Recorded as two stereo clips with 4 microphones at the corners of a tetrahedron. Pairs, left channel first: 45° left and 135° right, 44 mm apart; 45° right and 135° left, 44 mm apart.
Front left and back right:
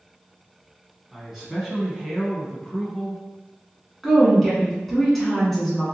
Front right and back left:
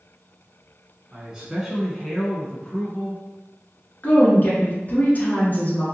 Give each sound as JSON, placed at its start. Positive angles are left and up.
{"t": 1.1, "sound": "a man speaking", "azimuth_deg": 145, "distance_m": 1.0}
{"t": 4.0, "sound": "a woman speaking", "azimuth_deg": -40, "distance_m": 1.3}